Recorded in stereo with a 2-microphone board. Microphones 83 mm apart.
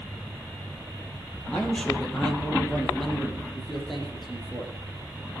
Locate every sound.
1.5 s a man speaking: 10° left (ahead or behind), 4 m; by 4.7 s 5° right (ahead or behind), 7.5 m